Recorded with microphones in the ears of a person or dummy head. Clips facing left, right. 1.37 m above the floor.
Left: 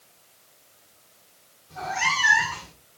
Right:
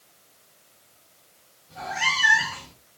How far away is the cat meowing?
About 1.6 m.